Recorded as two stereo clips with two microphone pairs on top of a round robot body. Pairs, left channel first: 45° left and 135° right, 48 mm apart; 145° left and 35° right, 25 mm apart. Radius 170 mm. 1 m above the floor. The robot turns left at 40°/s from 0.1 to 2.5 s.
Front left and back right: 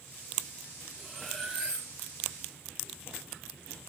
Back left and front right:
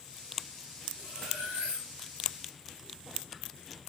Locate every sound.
1.0 s cutlery clinking: 35° right, 3 m; by 1.9 s 70° right, 3 m